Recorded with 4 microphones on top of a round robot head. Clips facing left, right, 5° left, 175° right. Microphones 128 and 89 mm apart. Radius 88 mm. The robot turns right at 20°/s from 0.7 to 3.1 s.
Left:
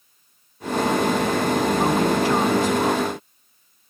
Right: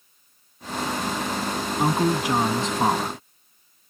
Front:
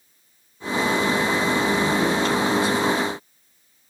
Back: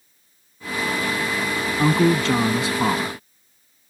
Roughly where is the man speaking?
Behind.